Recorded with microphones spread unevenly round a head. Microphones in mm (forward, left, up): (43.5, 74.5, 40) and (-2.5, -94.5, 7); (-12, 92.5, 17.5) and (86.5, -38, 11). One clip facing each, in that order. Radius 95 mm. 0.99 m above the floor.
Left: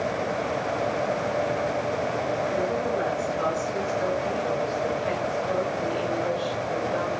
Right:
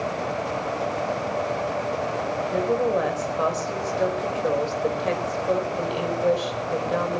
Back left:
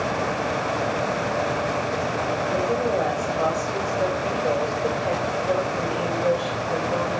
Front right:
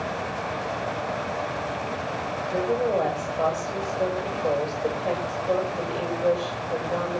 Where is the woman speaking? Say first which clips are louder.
Right 3 dB, front right 1 dB; 140° right, 5 m.